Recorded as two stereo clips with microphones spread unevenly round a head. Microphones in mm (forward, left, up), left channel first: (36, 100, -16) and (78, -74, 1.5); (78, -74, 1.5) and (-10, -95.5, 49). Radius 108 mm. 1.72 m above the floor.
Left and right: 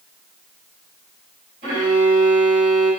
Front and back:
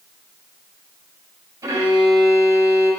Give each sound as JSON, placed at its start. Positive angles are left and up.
{"t": 1.6, "sound": "a violin", "azimuth_deg": -135, "distance_m": 5.5}